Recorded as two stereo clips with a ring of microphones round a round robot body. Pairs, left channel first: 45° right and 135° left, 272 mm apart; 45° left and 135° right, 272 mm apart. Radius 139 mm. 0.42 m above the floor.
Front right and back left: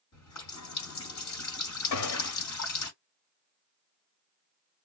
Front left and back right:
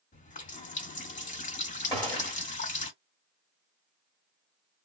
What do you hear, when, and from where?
0.1 s a running tap: 20° right, 1.6 m
1.9 s a gunshot: 30° right, 1.3 m